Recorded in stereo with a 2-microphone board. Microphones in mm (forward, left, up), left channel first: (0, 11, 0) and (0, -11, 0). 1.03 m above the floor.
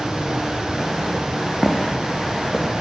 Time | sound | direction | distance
1.6 | footsteps | centre (ahead or behind) | 3 m